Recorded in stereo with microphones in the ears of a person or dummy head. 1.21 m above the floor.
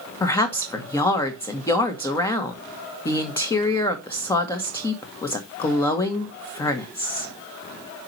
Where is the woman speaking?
15° left (ahead or behind), 2.0 m.